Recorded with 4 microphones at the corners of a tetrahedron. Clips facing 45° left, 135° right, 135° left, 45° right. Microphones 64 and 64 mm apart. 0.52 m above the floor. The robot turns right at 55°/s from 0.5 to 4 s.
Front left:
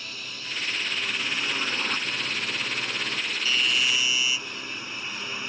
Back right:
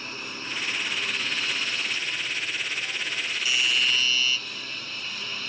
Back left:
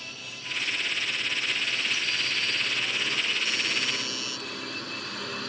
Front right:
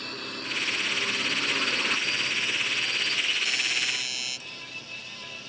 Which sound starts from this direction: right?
A drone, at 0.0 s.